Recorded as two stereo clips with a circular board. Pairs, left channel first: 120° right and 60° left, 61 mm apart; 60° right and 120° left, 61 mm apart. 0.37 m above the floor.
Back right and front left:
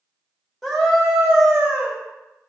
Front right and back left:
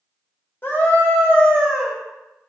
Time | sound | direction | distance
0.6 | a scream | 35° right | 1.4 m